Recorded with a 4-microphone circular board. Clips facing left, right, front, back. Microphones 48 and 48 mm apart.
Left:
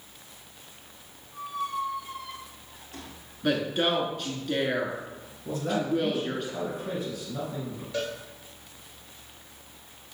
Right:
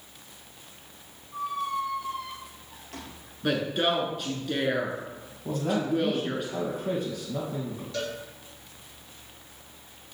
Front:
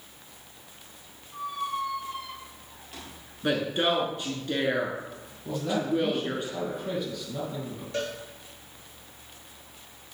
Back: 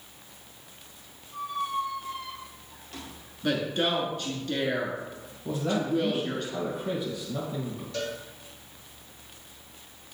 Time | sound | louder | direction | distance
1.3 | a squeak | right 2 dB, back 1 dB | 85° right | 2.5 m
3.4 | a woman speaking | even, front 1 dB | 5° right | 1.1 m
5.5 | a man speaking | right 1 dB, even | 105° right | 3 m
7.9 | a cowbell | left 2 dB, front 2 dB | 25° left | 2.5 m